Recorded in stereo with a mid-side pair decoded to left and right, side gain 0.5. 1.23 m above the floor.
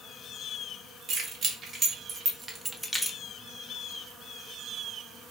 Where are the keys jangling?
55° right, 1.7 m; by 3.2 s 20° left, 0.7 m.